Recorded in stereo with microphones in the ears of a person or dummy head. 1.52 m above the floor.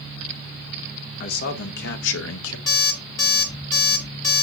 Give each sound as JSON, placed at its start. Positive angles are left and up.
{"t": 1.2, "sound": "a man speaking", "side_deg": 45, "distance_m": 1.4}
{"t": 2.7, "sound": "an alarm clock", "side_deg": 20, "distance_m": 1.0}